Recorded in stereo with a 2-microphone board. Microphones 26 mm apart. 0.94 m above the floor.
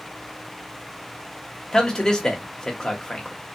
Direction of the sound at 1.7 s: 30° left (ahead or behind).